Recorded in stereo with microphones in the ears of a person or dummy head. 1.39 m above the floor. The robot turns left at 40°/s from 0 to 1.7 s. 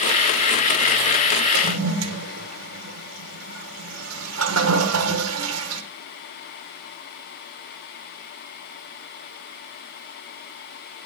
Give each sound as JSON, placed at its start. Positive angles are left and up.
{"t": 1.5, "sound": "a toilet flushing", "side_deg": -85, "distance_m": 1.1}